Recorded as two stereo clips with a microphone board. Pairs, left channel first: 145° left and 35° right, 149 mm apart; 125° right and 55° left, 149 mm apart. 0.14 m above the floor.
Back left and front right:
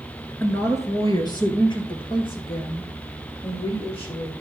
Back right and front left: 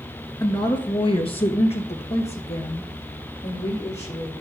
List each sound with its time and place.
0.4 s a woman speaking: 150° right, 1.1 m; by 4.3 s 165° right, 4 m